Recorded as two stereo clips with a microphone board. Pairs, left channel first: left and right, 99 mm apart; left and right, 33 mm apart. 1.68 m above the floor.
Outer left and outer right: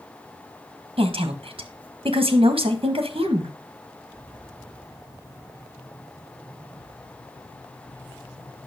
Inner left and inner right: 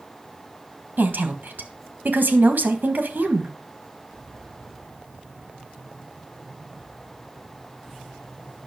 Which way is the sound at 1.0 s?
65° right (ahead or behind).